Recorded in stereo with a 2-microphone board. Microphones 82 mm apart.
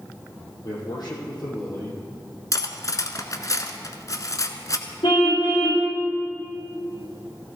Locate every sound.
0.6 s a man speaking: 55° left (ahead or behind), 5 m
2.5 s cutlery clinking: 45° left (ahead or behind), 1.1 m
5.0 s a car horn: 80° left, 5.5 m